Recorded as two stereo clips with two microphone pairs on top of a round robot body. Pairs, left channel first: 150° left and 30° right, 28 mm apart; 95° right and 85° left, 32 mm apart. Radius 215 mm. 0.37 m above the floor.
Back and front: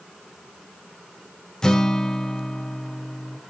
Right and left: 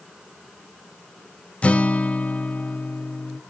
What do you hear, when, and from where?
1.6 s a guitar: 140° right, 1.4 m